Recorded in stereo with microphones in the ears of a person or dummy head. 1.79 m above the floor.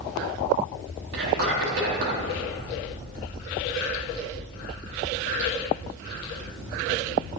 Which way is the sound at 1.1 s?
80° right.